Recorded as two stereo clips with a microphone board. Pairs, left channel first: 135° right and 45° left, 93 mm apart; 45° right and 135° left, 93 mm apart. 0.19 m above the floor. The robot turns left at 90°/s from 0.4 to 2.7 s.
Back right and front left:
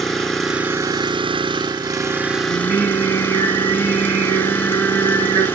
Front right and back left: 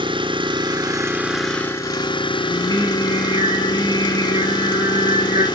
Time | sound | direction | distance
0.0 | an engine running | 135° left | 1.5 m
2.5 | singing | 135° left | 8.5 m